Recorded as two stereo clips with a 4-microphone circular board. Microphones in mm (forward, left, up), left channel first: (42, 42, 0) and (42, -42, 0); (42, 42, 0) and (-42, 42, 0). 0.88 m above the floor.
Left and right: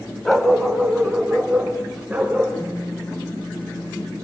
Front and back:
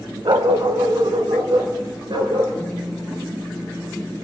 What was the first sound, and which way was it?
A dog barking, 175° left.